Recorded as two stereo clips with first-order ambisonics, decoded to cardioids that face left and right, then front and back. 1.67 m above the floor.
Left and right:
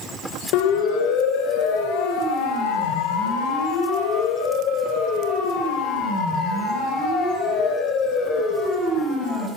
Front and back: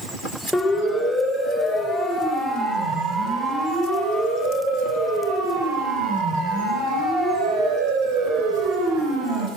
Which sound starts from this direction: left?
A siren, at 0.5 s.